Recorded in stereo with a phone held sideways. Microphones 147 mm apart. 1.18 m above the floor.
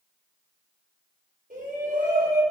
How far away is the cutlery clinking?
I don't hear cutlery clinking.